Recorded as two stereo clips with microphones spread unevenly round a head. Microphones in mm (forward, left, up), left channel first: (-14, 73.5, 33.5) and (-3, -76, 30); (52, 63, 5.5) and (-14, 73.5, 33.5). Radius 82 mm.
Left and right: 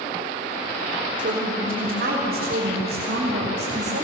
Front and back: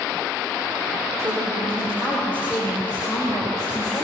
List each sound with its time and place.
1.2 s a woman speaking: 120° right, 4 m; by 4.0 s 95° right, 4.5 m